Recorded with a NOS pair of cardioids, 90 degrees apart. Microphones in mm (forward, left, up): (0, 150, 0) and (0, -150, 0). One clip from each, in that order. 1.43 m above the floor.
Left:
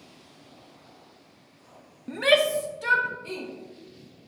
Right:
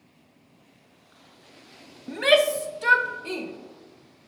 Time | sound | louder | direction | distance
2.1 | a shout | right 1 dB | straight ahead | 0.5 m